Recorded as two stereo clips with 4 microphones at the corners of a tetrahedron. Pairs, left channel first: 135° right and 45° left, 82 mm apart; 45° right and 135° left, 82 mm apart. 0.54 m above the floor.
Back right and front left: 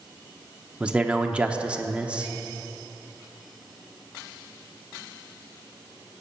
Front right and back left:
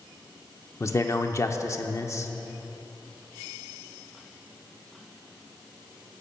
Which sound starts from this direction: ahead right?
A man speaking, at 0.8 s.